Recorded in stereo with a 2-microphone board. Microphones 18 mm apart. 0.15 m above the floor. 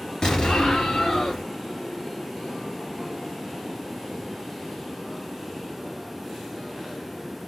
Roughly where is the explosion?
Left.